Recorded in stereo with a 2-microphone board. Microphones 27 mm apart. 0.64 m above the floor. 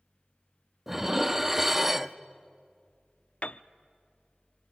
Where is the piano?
55° left (ahead or behind), 0.5 m.